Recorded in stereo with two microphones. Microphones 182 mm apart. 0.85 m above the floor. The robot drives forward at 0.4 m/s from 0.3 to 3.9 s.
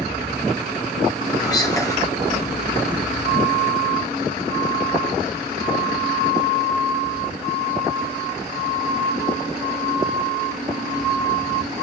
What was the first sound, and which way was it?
Whispering, 20° left (ahead or behind).